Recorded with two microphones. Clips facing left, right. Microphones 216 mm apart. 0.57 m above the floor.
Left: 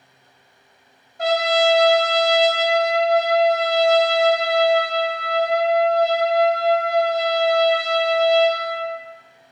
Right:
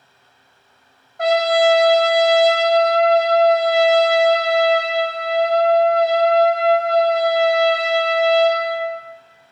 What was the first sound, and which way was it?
A trumpet, 60° right (ahead or behind).